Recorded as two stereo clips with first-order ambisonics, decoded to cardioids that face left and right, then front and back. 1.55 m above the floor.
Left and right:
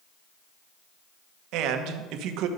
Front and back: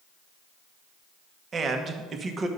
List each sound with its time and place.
1.5 s a man speaking: 115° right, 1.1 m